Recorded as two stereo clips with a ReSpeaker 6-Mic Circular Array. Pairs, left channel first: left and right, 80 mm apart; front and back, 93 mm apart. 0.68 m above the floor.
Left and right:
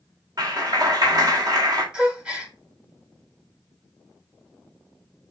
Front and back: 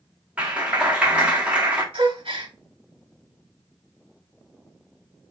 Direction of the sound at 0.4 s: 110° right.